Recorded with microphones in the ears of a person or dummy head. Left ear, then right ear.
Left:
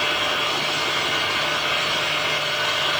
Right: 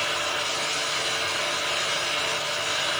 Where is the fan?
80° right, 5.5 m.